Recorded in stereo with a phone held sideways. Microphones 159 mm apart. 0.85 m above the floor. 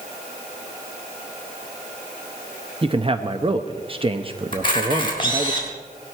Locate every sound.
2.8 s a man speaking: 35° right (ahead or behind), 0.7 m
4.5 s a camera shutter: 30° left (ahead or behind), 3.5 m